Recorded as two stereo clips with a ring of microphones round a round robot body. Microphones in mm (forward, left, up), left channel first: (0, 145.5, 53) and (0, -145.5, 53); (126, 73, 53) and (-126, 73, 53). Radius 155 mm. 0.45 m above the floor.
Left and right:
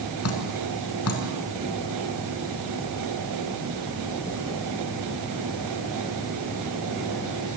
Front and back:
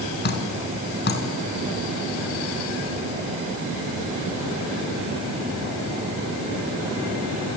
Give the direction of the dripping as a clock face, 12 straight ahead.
10 o'clock.